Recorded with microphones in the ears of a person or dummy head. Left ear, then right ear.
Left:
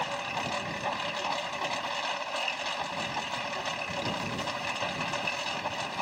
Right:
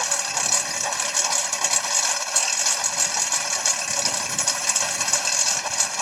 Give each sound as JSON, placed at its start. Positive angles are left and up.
{"t": 0.0, "sound": "a lawn mower", "side_deg": -70}